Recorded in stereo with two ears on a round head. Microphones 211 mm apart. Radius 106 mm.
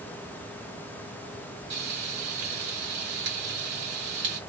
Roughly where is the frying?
Right.